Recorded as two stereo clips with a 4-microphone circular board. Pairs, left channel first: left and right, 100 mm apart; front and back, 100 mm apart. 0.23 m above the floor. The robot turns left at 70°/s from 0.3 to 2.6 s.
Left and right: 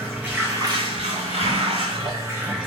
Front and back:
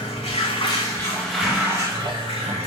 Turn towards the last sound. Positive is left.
turn(degrees=-175)